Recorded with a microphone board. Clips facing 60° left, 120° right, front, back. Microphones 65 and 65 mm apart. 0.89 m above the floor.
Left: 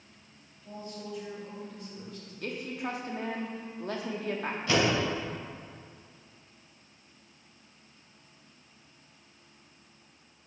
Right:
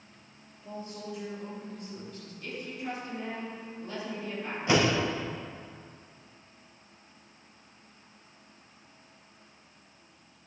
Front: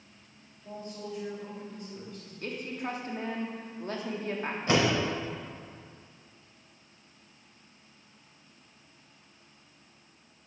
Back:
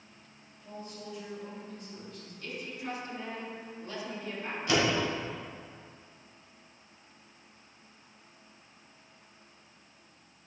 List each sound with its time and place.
0.6 s a man speaking: 65° right, 2.5 m
2.4 s a woman speaking: 40° left, 1.3 m
4.7 s a door slam: 55° right, 3 m